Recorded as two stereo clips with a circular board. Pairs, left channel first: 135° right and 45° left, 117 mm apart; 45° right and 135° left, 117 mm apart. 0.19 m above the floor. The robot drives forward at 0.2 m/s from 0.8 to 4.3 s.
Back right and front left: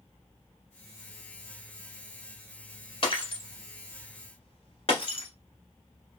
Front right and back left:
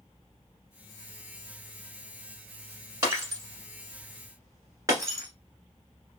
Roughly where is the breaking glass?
Behind.